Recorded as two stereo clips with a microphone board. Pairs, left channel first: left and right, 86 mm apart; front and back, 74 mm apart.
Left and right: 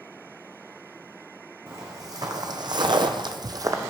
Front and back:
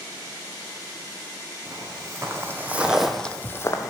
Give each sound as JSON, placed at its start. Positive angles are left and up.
{"t": 1.7, "sound": "footsteps", "azimuth_deg": -140, "distance_m": 1.1}